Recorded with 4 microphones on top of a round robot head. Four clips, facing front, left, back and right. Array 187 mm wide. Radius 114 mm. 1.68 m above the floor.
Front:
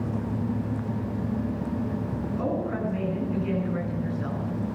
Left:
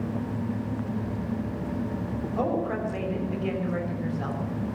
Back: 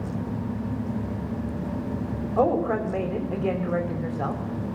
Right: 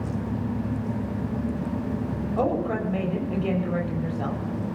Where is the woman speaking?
165° right, 5.5 m.